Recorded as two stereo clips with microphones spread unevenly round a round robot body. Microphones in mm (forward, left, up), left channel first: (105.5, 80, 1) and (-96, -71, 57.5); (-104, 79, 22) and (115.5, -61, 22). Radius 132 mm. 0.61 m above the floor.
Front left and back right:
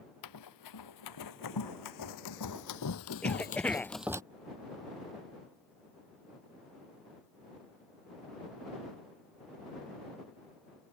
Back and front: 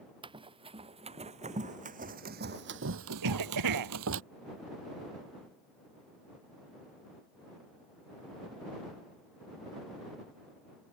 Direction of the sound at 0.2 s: 40° left.